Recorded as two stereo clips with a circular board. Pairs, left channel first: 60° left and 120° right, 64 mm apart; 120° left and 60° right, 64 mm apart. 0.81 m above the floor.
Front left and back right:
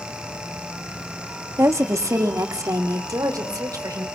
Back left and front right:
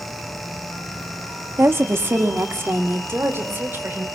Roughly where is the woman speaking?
Right.